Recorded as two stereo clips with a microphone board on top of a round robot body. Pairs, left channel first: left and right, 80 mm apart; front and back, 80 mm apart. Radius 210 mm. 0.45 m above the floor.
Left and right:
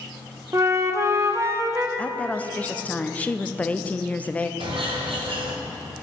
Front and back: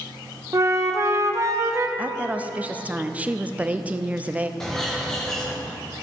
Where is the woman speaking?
135° left, 0.7 m.